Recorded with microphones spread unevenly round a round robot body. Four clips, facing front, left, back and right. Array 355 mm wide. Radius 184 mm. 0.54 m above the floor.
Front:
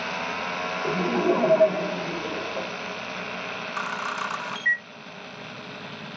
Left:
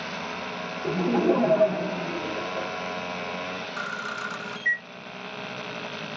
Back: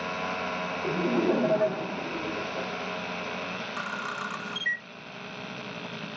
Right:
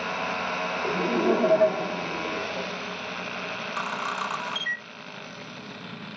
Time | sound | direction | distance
0.8 | laughter | 125° left | 1.3 m
3.8 | a camera shutter | 40° right | 1.2 m